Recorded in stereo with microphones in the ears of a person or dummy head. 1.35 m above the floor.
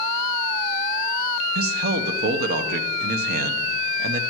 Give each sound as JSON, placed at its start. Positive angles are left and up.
{"t": 1.6, "sound": "a man speaking", "side_deg": -60, "distance_m": 0.8}